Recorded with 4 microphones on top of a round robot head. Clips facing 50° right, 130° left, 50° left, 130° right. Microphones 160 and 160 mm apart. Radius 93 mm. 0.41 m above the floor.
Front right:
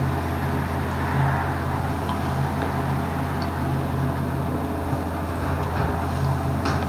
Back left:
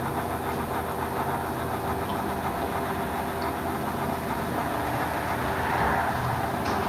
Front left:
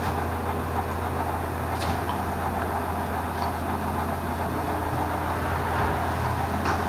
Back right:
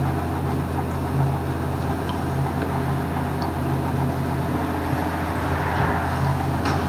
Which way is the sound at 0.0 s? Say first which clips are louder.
Front right 2 dB, back right 3 dB; 80° right.